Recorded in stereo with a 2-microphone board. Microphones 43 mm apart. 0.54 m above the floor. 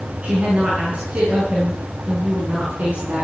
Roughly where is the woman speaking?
Right.